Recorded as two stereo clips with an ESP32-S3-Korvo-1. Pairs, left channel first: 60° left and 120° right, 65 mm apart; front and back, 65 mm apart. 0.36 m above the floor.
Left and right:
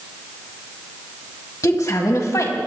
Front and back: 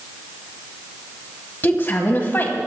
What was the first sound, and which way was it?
A woman speaking, 50° left.